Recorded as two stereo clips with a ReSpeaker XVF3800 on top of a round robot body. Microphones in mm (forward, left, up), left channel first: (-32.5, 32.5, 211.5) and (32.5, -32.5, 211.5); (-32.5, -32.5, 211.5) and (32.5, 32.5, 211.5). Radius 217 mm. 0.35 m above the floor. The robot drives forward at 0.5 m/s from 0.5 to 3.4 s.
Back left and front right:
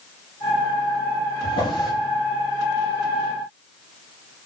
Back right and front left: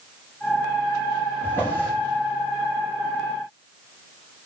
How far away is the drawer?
About 5 m.